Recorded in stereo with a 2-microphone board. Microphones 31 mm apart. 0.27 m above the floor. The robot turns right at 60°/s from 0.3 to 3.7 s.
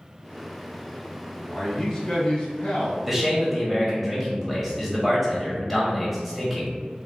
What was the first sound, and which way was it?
A man speaking, 5° right.